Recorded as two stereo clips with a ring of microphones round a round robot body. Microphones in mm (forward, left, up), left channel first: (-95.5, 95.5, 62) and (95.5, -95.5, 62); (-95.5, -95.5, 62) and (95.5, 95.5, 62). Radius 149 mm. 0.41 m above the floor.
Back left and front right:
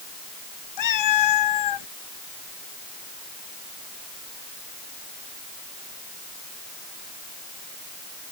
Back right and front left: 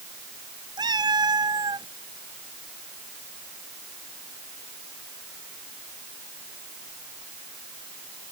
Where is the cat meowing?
120° left.